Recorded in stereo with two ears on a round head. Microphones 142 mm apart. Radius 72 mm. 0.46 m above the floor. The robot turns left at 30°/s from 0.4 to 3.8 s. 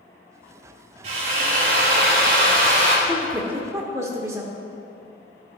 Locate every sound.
1.0 s a drill: 50° right, 2.5 m; by 3.0 s 110° right, 2.5 m
3.1 s a woman speaking: 10° right (ahead or behind), 1.0 m; by 4.6 s 20° right (ahead or behind), 1.0 m